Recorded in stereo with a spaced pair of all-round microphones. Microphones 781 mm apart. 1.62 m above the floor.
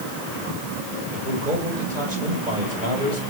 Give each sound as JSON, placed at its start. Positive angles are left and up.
{"t": 1.1, "sound": "a man speaking", "side_deg": -75, "distance_m": 7.5}